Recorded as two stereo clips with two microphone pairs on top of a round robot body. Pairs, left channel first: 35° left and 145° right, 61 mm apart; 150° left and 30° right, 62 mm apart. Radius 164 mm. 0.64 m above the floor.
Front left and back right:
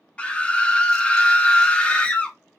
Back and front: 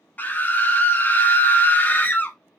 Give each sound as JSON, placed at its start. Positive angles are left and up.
{"t": 0.2, "sound": "a scream", "azimuth_deg": 105, "distance_m": 0.7}